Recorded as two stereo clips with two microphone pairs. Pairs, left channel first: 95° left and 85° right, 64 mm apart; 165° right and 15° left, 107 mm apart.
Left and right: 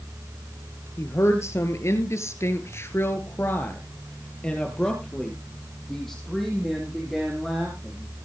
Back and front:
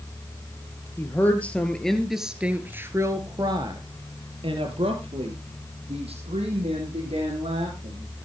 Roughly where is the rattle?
No rattle in this recording.